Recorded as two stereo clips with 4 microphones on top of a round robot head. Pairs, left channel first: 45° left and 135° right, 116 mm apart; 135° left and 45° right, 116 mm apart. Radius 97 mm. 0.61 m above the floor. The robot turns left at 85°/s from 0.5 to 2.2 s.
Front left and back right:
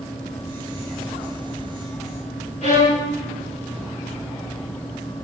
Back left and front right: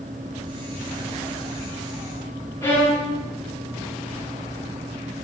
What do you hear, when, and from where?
2.6 s a violin: 65° left, 8 m